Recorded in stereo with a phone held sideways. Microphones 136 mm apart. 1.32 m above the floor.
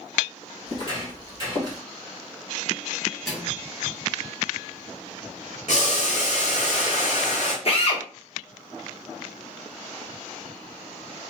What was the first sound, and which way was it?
Footsteps, 35° left (ahead or behind).